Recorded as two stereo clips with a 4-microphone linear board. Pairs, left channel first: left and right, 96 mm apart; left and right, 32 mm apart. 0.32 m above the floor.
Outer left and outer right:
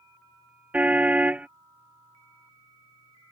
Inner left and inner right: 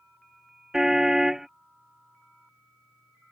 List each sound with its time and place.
0.7 s a car horn: 15° right (ahead or behind)